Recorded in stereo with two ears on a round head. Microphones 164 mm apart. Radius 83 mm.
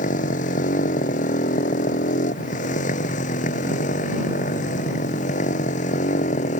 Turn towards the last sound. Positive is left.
turn(degrees=40)  # may be behind; listen again after turning